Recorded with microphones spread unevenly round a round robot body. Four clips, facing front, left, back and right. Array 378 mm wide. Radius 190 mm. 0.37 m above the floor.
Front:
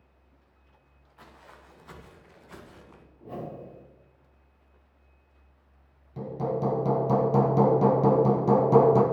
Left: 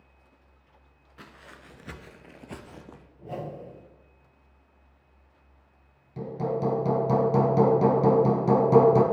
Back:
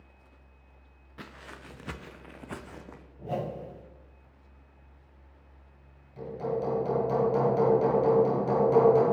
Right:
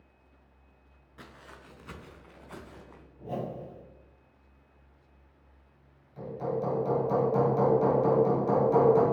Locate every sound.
1.2 s footsteps: 175° left, 1.9 m; by 3.1 s 125° left, 2.0 m
3.2 s a whoosh: 175° left, 2.5 m
6.2 s hammering: 50° left, 2.5 m